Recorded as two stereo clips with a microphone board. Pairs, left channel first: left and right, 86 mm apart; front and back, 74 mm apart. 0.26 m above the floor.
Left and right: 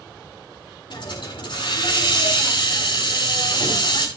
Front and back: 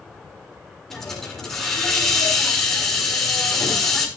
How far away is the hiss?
About 3 m.